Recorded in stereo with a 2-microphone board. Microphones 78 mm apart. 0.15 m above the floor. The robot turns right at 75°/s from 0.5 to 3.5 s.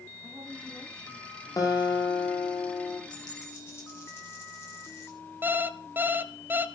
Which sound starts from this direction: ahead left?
A guitar, at 1.6 s.